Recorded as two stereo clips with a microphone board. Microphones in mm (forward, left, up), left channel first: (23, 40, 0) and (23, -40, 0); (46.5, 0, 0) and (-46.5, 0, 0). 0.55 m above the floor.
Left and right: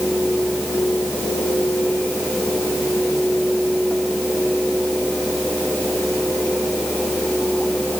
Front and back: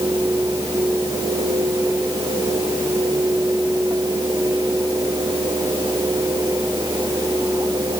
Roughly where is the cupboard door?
No cupboard door in this recording.